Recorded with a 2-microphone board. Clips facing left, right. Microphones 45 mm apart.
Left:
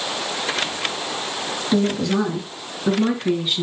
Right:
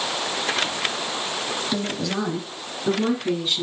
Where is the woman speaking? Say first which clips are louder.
Left 10 dB; 10° left (ahead or behind), 3.5 m.